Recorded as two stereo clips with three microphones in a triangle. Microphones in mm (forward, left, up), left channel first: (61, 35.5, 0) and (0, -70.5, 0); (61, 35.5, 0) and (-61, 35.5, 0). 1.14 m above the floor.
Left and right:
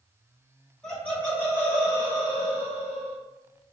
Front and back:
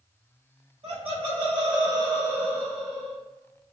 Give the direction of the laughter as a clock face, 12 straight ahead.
7 o'clock.